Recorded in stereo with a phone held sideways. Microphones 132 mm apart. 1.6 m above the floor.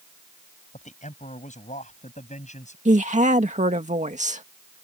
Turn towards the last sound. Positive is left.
turn(degrees=-65)  # may be behind; listen again after turning